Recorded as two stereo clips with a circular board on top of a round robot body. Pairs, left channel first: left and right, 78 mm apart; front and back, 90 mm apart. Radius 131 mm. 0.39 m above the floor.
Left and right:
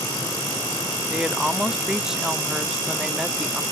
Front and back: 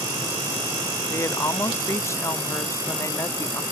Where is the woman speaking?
15° right.